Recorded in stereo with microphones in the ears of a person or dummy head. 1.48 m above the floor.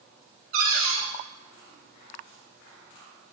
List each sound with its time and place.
0.5 s a cupboard door: 75° right (ahead or behind), 3 m